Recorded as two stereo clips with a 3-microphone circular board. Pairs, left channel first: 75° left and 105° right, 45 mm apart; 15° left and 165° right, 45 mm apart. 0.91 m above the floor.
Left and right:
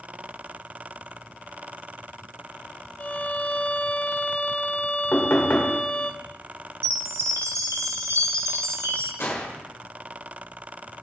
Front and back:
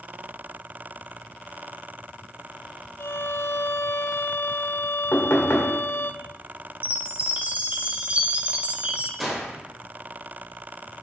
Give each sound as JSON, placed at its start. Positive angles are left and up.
{"t": 3.0, "sound": "a violin", "azimuth_deg": 25, "distance_m": 0.7}
{"t": 5.1, "sound": "knocking", "azimuth_deg": 45, "distance_m": 1.8}
{"t": 6.8, "sound": "a chime", "azimuth_deg": -105, "distance_m": 1.0}
{"t": 9.2, "sound": "a gunshot", "azimuth_deg": 105, "distance_m": 2.0}